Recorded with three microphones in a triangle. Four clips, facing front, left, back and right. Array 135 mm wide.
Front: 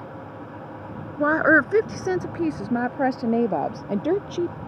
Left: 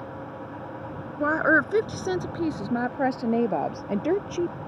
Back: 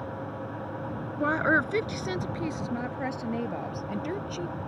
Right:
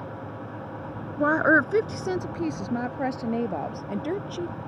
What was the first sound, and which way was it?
A woman speaking, 15° right.